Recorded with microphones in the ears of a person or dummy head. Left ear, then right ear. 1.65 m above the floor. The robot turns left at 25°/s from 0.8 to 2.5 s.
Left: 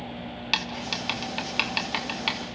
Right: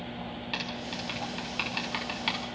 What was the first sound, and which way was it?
Writing, 45° left (ahead or behind).